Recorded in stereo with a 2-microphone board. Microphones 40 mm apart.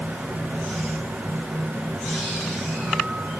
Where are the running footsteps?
I don't hear running footsteps.